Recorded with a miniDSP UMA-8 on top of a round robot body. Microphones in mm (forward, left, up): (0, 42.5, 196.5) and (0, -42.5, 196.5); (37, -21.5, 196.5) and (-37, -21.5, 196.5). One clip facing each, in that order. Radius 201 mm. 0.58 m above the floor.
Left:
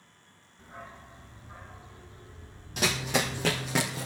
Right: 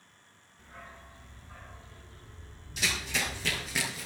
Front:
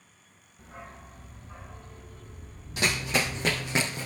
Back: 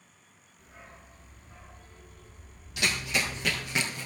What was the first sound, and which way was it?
A dog barking, 25° left.